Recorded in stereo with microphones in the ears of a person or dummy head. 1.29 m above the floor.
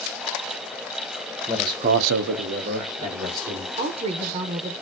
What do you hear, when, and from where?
1.5 s a man speaking: 10° right (ahead or behind), 0.8 m; by 3.7 s 35° right (ahead or behind), 2 m
3.8 s a woman speaking: 35° right (ahead or behind), 0.6 m